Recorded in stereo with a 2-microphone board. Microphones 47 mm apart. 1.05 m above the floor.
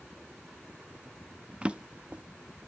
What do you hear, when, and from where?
1.6 s a drawer: 25° right (ahead or behind), 0.5 m